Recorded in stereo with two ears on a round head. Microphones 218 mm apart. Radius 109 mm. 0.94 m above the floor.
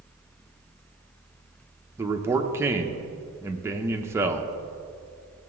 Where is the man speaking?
10° right (ahead or behind), 0.6 m.